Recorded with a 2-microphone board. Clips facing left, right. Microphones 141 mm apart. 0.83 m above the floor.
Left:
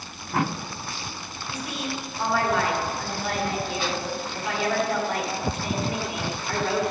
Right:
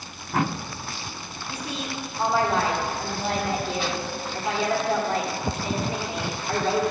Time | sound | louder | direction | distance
1.5 | a woman speaking | left 1 dB | 30° right (ahead or behind) | 1.7 m